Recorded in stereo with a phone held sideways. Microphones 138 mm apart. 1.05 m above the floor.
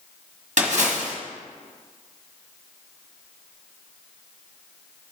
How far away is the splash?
About 1.3 m.